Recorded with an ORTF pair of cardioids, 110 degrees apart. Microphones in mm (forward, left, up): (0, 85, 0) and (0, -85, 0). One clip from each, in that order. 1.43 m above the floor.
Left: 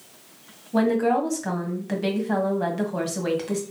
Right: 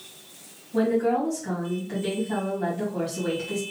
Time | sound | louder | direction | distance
0.7 | a woman speaking | left 2 dB | 55° left | 1.7 m